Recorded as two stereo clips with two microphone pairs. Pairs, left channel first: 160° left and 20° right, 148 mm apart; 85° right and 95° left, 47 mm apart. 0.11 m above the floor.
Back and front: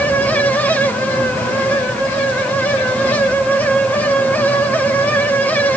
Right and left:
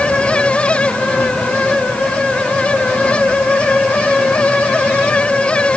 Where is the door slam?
I don't hear a door slam.